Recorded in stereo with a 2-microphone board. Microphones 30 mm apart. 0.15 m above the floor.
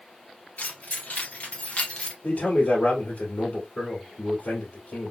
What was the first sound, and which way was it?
Keys jangling, 60° left (ahead or behind).